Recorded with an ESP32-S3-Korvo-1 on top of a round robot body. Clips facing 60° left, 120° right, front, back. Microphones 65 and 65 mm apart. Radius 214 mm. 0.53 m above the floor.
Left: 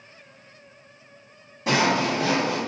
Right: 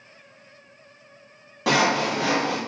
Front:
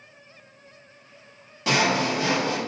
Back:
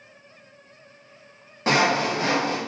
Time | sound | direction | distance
1.7 | sawing | 125° right | 1.1 m